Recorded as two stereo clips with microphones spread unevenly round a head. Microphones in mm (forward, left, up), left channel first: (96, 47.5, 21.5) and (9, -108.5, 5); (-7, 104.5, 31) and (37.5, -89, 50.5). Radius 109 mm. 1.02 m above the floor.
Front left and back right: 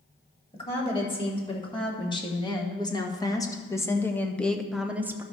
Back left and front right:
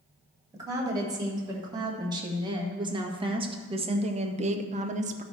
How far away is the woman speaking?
About 3 m.